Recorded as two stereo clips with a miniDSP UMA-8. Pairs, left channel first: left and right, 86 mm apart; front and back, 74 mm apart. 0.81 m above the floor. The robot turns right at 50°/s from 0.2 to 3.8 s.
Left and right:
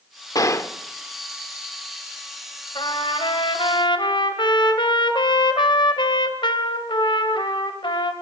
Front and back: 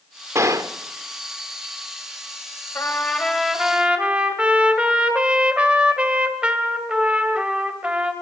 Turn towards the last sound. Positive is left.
turn(degrees=105)